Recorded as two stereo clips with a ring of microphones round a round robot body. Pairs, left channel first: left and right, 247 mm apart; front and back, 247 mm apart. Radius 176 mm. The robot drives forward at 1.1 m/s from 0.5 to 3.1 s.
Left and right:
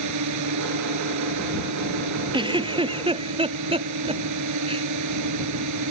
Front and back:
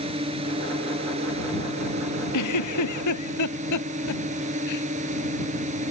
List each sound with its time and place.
0.0 s a drone: 105° right; by 5.9 s 110° right
2.3 s a giggle: 20° right